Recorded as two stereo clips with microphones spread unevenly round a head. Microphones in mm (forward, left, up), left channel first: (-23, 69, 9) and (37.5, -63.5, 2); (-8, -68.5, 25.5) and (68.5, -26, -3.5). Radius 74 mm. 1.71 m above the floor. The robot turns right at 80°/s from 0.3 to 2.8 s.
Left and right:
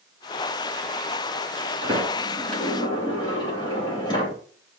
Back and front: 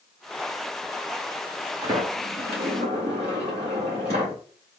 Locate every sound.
1.8 s a sliding door: 25° right, 2.5 m; by 4.3 s 55° left, 2.5 m